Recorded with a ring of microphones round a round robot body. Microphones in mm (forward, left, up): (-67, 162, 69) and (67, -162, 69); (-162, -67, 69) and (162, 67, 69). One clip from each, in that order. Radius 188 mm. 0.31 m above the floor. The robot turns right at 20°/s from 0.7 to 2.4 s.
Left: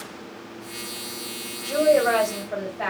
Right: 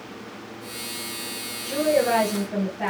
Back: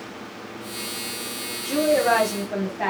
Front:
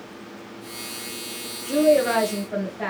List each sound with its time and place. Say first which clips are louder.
1.6 s a woman speaking: left 3 dB, front 1 dB; 125° left, 1.7 m; by 2.9 s 140° left, 1.7 m